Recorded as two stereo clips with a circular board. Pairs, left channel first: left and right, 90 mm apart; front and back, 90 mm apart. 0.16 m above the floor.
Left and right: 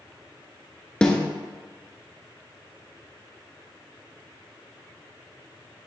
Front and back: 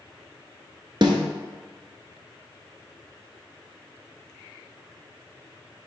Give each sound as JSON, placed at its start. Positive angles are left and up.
{"t": 1.0, "sound": "a snare drum", "azimuth_deg": 170, "distance_m": 1.1}